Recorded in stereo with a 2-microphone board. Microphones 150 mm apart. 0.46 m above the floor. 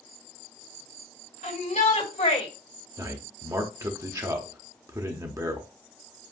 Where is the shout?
60° left (ahead or behind), 3 m; by 2.5 s 45° left (ahead or behind), 2 m.